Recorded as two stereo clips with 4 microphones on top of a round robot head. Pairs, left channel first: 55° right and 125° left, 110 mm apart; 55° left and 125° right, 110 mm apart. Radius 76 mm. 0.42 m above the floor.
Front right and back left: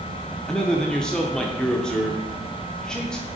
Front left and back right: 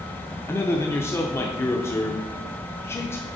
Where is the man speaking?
25° left, 0.8 m.